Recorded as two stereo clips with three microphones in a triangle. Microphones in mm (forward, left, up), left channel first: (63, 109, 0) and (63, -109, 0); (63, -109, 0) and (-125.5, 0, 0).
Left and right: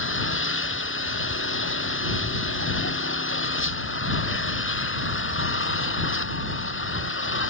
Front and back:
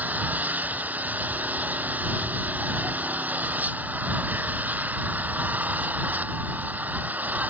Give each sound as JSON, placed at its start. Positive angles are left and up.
{"t": 0.0, "sound": "an engine running", "azimuth_deg": 65}